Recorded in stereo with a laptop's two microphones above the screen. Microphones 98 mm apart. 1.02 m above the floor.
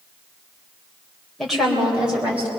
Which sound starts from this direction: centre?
A woman speaking, at 1.4 s.